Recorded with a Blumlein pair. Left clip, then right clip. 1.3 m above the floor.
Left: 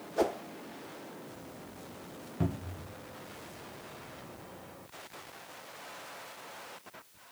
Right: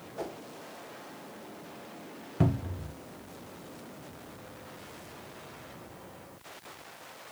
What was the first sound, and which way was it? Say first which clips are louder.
A whoosh: left 9 dB; 30° left.